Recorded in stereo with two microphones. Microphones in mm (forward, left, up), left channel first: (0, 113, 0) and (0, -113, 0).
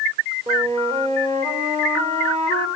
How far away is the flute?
About 3 m.